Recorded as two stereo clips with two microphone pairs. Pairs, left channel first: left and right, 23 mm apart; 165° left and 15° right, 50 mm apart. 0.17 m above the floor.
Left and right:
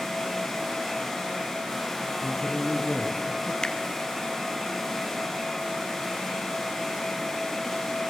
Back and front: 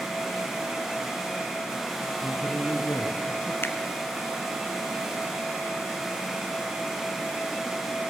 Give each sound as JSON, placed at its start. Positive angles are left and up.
{"t": 2.2, "sound": "a man speaking", "azimuth_deg": 165, "distance_m": 2.5}
{"t": 3.6, "sound": "a finger snap", "azimuth_deg": 140, "distance_m": 1.7}